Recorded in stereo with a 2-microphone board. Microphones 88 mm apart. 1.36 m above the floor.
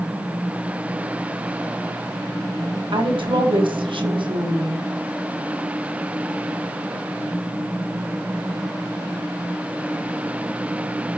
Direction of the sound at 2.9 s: 80° right.